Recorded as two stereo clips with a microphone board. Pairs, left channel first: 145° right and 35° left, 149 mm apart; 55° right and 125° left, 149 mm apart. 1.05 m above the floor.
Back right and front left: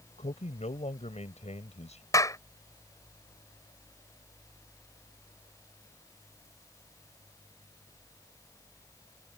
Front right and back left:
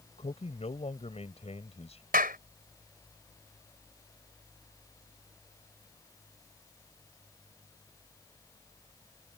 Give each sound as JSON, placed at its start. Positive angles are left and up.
{"t": 0.2, "sound": "a man speaking", "azimuth_deg": -100}
{"t": 2.1, "sound": "a clap", "azimuth_deg": 145}